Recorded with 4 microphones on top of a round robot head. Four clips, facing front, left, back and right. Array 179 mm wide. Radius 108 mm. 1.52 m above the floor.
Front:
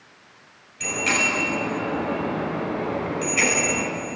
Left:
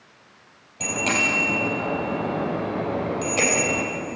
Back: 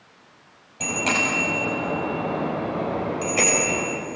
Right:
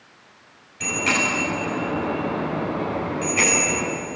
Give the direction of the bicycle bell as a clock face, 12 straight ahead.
7 o'clock.